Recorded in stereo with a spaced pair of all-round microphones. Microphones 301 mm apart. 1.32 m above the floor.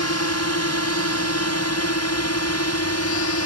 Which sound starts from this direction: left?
A drone, at 0.0 s.